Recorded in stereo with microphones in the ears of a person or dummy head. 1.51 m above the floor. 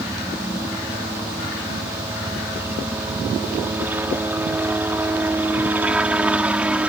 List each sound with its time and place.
0.0 s a helicopter: 10° right (ahead or behind); by 6.9 s 5° right (ahead or behind)